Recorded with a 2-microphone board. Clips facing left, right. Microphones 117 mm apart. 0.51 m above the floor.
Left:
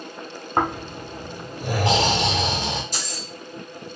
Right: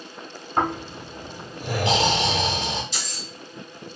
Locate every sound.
0.6 s snoring: 50° left (ahead or behind), 1.4 m
2.9 s keys jangling: 45° left (ahead or behind), 1.2 m